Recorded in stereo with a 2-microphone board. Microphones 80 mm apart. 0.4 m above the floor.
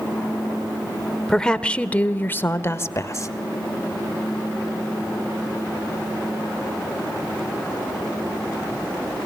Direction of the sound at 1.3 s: 10° left (ahead or behind).